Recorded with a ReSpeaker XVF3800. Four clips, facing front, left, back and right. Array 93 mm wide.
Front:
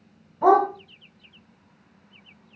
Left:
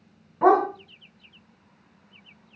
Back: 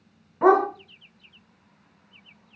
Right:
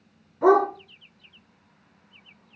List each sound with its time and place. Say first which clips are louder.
0.4 s a dog barking: even, even; 140° left, 2 m